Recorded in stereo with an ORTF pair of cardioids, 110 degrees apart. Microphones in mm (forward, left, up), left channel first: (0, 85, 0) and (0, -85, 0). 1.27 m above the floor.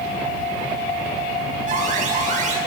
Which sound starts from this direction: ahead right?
An alarm, at 1.7 s.